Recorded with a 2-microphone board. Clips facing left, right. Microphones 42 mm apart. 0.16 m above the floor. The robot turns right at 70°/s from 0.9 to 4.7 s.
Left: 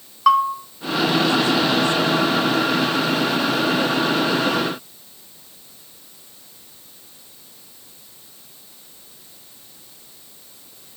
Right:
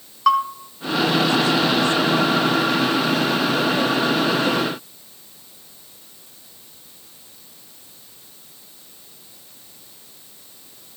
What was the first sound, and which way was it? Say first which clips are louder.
A bell: left 2 dB; 5° left (ahead or behind).